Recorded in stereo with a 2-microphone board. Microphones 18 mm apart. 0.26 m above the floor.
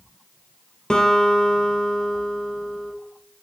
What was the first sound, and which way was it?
A guitar, 50° left (ahead or behind).